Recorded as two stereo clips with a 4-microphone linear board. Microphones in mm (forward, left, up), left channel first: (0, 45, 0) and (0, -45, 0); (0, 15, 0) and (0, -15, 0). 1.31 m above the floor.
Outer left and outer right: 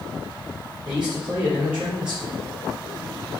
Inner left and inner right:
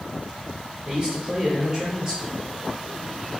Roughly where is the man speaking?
Centre.